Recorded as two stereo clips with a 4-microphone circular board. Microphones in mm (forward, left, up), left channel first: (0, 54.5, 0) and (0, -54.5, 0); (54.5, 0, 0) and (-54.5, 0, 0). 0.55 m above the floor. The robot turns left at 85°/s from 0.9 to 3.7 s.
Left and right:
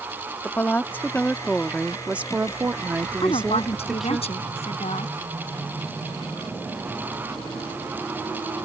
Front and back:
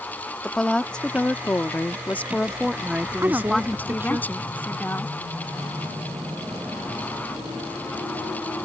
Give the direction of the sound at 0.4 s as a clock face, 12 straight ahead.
10 o'clock.